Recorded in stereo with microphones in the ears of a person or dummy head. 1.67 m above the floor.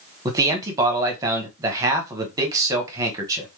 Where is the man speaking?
15° right (ahead or behind), 1.0 m.